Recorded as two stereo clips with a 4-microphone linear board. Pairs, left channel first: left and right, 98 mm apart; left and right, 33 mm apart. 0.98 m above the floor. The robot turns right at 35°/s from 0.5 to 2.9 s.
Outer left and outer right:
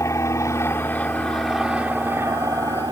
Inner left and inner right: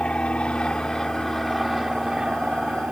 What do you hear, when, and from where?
0.0 s an aircraft: 150° left; by 2.9 s 130° right